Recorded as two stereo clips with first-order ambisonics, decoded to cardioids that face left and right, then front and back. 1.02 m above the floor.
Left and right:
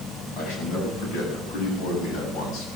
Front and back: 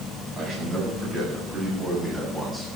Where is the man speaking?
125° left, 8 m; by 2.7 s 100° left, 7 m.